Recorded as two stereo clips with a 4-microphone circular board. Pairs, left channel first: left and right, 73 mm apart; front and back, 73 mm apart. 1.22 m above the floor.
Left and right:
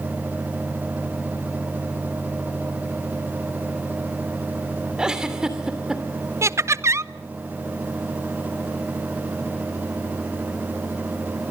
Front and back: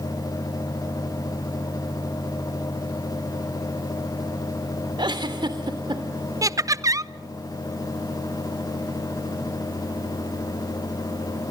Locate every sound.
5.0 s a giggle: 170° right, 3 m
6.4 s laughter: 140° right, 0.7 m